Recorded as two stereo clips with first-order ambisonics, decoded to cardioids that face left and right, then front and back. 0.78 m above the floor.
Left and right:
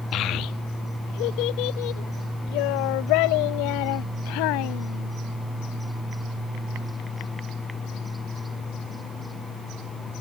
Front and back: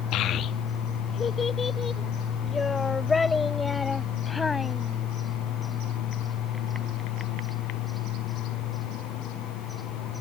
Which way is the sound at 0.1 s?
40° left.